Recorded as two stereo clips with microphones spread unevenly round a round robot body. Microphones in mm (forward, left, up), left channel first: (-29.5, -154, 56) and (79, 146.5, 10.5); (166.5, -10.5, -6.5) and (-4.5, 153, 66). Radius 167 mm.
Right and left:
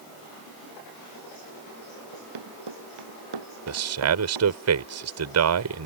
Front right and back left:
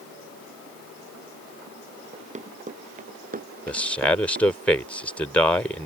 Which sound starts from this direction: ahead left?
A man speaking, at 3.7 s.